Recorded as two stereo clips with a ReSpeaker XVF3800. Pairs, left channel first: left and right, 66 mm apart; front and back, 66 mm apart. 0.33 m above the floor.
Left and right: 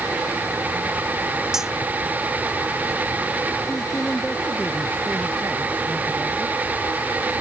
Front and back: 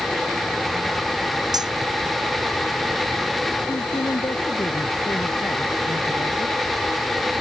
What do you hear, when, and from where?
1.5 s cutlery clinking: 175° right
3.7 s a man speaking: 15° left